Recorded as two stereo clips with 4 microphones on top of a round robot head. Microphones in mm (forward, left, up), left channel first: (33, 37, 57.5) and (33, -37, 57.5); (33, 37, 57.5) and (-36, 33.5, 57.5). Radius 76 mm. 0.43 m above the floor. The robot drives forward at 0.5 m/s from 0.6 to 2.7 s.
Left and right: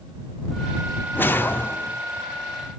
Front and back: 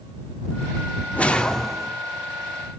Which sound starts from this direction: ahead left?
A whoosh, at 1.1 s.